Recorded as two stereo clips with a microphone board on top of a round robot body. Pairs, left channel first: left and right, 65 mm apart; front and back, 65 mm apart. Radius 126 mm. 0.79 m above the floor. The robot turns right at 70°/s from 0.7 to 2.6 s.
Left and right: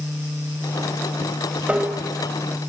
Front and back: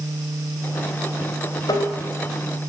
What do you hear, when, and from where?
1.7 s tapping: 25° right, 3.5 m; by 1.9 s 10° right, 3.5 m